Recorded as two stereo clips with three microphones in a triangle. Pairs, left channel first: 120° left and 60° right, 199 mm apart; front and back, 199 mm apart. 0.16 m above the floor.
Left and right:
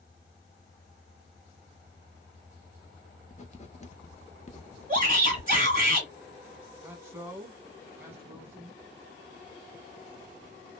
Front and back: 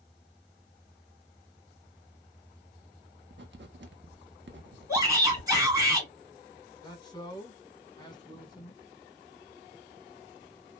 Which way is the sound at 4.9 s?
130° left.